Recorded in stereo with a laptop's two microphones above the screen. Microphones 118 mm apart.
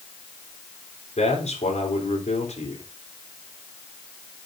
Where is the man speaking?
70° left (ahead or behind), 4 m.